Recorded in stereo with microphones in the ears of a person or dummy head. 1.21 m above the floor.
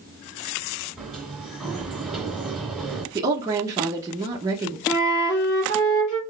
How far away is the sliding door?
About 1.8 m.